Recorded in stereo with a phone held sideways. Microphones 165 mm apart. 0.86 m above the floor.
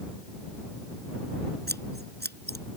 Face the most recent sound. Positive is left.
turn(degrees=-90)